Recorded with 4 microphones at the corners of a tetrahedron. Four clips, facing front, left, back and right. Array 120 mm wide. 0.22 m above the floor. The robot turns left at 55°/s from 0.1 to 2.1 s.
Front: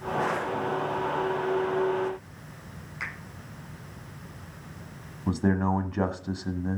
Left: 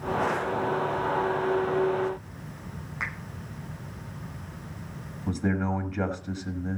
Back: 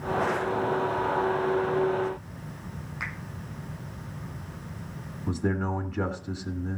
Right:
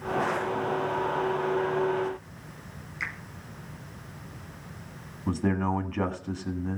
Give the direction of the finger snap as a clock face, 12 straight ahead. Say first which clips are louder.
Left 1 dB, even; 9 o'clock.